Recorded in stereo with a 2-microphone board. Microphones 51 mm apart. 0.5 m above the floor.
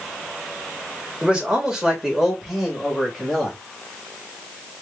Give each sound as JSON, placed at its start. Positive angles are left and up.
{"t": 1.2, "sound": "a man speaking", "side_deg": -20, "distance_m": 2.0}